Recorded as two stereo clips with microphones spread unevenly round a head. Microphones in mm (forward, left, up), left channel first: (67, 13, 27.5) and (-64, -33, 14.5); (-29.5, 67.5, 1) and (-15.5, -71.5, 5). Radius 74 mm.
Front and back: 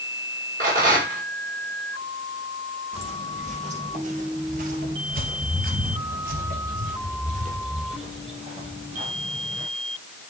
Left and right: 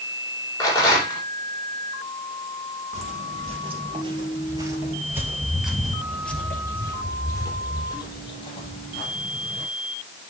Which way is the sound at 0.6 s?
165° left.